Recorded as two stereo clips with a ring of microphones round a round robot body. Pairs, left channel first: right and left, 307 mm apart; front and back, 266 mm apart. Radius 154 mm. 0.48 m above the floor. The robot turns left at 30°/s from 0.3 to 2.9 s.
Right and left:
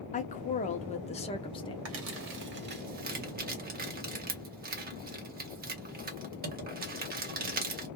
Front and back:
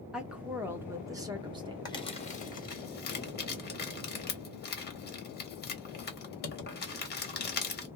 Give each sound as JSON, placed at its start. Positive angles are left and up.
{"t": 0.1, "sound": "a woman speaking", "azimuth_deg": -95, "distance_m": 0.7}
{"t": 1.9, "sound": "crumpling", "azimuth_deg": 70, "distance_m": 1.5}